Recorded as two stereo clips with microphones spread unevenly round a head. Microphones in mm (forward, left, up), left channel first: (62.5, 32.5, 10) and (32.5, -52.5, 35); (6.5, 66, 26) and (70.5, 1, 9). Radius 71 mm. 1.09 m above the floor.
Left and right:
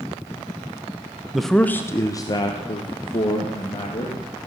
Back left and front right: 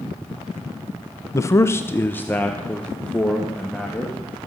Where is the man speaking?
120° left, 0.6 m; by 4.2 s 50° left, 2.5 m.